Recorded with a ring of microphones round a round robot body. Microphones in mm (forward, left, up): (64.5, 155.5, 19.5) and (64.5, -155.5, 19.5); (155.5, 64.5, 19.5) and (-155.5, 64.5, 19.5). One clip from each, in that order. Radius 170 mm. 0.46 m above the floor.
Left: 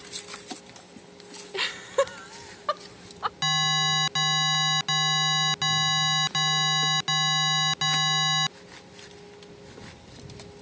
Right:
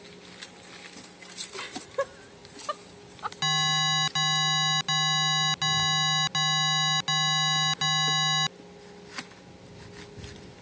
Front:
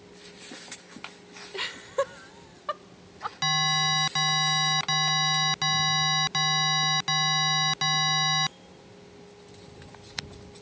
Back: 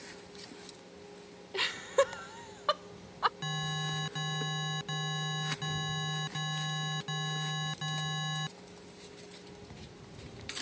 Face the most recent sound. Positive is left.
turn(degrees=5)